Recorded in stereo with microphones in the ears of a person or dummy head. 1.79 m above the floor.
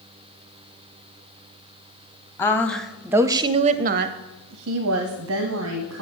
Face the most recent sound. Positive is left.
turn(degrees=-75)  # may be behind; listen again after turning